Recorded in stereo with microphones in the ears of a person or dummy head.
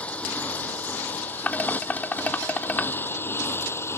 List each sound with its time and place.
0.0 s a motorcycle: 10° left (ahead or behind); by 4.0 s 15° left (ahead or behind)
1.5 s dishes clattering: 10° left (ahead or behind)